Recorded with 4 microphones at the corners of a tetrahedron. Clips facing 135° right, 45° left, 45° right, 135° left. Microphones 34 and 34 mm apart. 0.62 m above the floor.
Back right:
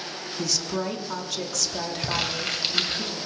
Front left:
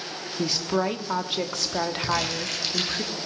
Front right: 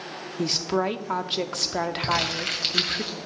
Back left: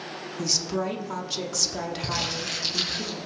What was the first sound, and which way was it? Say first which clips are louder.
A woman speaking: front left 4 dB, front right 4 dB; 5° right.